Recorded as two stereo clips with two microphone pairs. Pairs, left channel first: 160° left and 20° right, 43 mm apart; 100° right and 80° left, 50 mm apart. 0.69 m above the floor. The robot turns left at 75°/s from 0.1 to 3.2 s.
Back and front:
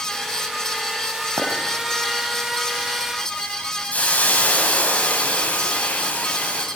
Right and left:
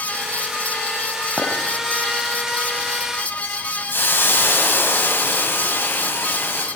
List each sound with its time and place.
1.4 s a clink: 5° right, 4 m; by 1.5 s 20° right, 4 m
3.9 s a hiss: 145° right, 4.5 m